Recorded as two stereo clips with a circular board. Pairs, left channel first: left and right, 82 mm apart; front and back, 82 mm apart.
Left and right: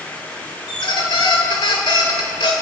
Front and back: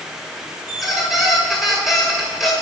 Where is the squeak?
90° left, 1.9 m.